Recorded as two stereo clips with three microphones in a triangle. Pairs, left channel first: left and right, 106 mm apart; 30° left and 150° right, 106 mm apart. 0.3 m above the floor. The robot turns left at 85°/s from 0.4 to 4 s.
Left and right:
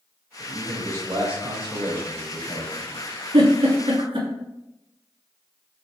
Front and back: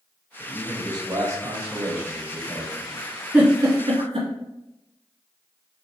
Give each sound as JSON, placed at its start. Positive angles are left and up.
{"t": 0.4, "sound": "a man speaking", "azimuth_deg": -80, "distance_m": 1.0}
{"t": 3.3, "sound": "a giggle", "azimuth_deg": -70, "distance_m": 1.5}